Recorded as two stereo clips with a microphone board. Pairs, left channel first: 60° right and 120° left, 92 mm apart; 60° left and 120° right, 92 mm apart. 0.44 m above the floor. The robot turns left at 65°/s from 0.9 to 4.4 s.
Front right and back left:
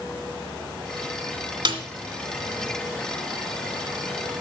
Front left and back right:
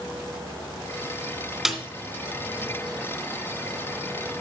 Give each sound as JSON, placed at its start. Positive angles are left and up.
{"t": 1.6, "sound": "a snare drum", "azimuth_deg": 155, "distance_m": 2.0}